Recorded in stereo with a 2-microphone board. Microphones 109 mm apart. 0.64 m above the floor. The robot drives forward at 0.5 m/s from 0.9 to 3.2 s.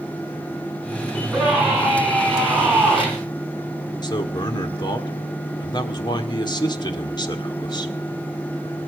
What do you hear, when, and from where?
1.1 s a scream: centre (ahead or behind), 7 m
4.0 s a man speaking: 40° left (ahead or behind), 1.6 m